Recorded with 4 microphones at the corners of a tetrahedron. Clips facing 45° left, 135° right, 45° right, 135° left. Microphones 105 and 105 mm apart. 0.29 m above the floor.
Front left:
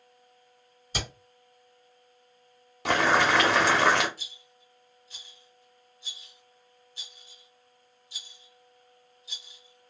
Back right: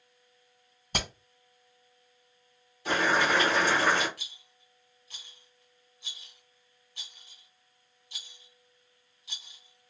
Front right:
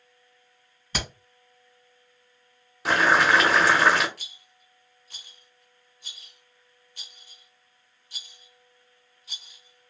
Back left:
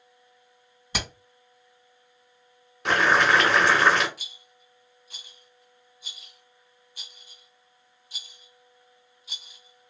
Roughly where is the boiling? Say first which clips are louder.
Front left 3 dB, even; ahead left.